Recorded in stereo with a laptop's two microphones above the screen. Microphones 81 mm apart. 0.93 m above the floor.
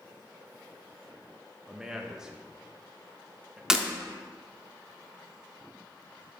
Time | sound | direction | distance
1.7 | a man speaking | 5° right (ahead or behind) | 0.8 m
3.7 | breaking glass | 10° right (ahead or behind) | 0.6 m